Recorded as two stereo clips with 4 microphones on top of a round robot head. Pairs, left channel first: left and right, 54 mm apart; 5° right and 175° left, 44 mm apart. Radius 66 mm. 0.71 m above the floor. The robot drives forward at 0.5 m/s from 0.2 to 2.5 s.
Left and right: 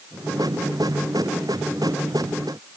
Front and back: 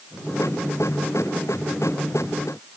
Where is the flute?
No flute in this recording.